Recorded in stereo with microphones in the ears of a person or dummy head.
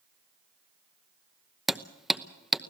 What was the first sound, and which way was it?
Hammering, centre (ahead or behind).